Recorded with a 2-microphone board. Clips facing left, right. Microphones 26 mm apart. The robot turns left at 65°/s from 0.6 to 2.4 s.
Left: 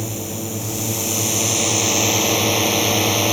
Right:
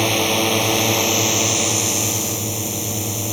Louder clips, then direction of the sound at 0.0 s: Right 10 dB; 115° right.